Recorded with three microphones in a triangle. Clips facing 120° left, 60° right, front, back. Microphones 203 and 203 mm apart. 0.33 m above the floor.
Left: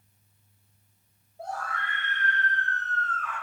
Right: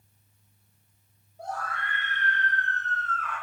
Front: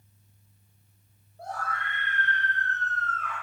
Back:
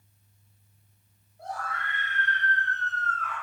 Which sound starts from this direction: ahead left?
A scream, at 1.4 s.